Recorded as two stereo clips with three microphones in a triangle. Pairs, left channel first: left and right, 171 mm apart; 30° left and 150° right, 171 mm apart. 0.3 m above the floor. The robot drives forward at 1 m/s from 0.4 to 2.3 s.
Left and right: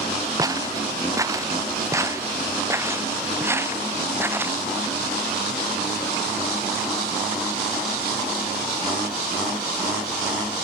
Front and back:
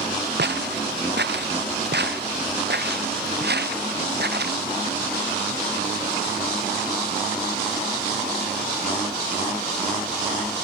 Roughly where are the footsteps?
Behind.